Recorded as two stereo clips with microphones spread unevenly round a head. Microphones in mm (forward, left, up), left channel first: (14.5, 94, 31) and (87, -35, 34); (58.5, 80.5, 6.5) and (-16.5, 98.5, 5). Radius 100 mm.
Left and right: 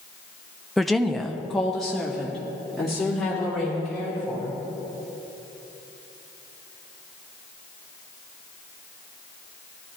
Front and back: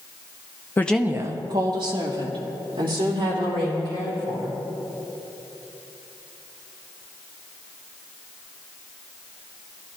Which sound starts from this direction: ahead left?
A woman speaking, at 0.8 s.